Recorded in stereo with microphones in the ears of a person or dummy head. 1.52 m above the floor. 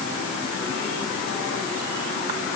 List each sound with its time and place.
Only background noise.